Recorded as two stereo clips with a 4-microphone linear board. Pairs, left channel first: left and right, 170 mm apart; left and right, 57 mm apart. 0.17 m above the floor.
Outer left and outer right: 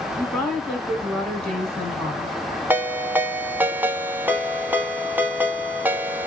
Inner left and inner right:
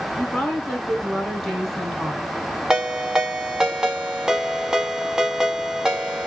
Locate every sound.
0.2 s a woman speaking: 5° left (ahead or behind), 1.8 m
2.7 s a ringtone: 10° right (ahead or behind), 0.7 m